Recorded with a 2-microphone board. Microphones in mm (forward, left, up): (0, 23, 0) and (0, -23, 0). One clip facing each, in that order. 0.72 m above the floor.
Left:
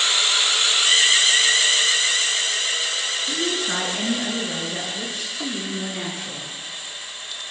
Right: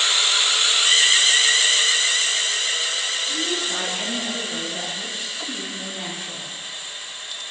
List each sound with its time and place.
3.3 s a woman speaking: 75° left (ahead or behind), 9 m; by 6.5 s 80° left, 10.5 m